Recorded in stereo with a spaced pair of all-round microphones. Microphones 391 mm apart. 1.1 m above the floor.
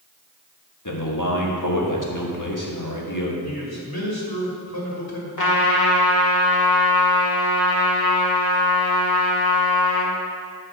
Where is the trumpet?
50° left (ahead or behind), 1.6 m.